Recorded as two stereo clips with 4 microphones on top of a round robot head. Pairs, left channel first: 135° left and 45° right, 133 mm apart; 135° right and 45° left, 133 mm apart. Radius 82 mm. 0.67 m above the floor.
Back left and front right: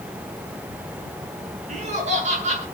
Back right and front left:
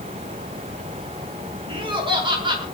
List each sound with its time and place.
1.7 s laughter: 10° right, 7.5 m